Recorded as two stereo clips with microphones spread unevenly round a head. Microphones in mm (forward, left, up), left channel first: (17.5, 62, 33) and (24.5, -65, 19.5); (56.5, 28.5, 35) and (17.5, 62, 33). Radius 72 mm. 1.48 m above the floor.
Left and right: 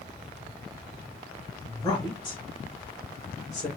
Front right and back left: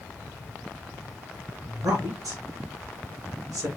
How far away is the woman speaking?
About 3 m.